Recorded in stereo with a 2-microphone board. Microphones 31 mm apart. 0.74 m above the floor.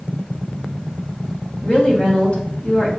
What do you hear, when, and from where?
1.6 s a woman speaking: 35° left (ahead or behind), 0.9 m